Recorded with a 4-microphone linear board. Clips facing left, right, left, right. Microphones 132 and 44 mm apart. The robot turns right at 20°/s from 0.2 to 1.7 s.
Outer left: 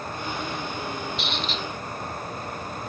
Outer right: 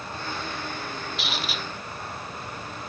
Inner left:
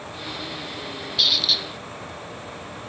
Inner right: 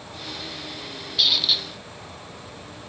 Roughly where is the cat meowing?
No cat meowing in this recording.